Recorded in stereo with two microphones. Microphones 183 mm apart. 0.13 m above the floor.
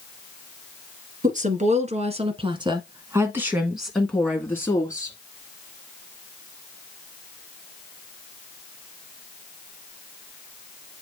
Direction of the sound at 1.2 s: 45° right (ahead or behind).